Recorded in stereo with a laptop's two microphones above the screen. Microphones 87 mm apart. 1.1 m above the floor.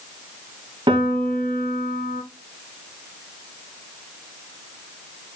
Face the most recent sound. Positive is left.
turn(degrees=-65)  # may be behind; listen again after turning